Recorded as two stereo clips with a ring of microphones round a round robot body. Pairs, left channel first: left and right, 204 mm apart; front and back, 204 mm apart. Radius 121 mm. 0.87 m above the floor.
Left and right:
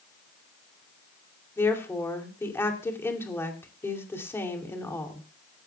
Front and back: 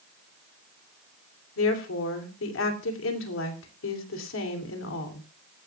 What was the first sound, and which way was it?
A woman speaking, 10° left.